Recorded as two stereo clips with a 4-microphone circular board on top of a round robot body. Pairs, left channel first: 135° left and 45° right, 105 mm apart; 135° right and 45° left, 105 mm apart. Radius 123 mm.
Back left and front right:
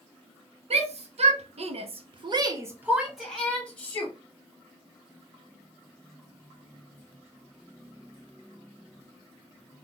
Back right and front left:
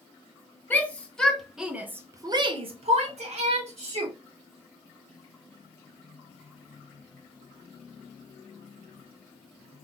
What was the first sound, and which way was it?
A shout, 60° right.